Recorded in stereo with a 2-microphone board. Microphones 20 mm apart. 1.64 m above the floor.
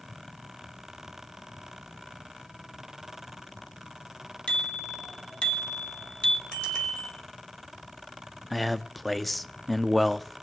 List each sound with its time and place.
4.5 s a bicycle bell: 55° left (ahead or behind), 2.5 m; by 6.4 s 60° left (ahead or behind), 1.3 m
6.5 s a bicycle bell: 70° left (ahead or behind), 5.5 m
8.5 s a man speaking: 5° left (ahead or behind), 0.5 m